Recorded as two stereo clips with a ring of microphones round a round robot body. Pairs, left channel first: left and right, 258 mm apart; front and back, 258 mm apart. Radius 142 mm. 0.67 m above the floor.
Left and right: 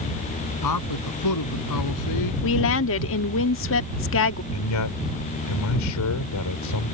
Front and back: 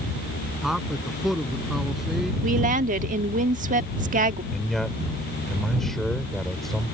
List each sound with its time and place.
0.6 s a man speaking: 90° left
2.4 s a woman speaking: 120° left
4.5 s a man speaking: 90° left